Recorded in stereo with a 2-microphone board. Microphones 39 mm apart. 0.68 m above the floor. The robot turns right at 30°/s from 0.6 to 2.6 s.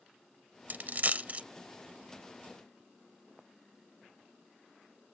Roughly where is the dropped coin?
Right.